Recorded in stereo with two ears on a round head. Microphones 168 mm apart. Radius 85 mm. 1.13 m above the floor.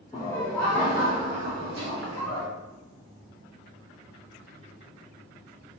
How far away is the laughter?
About 1.3 m.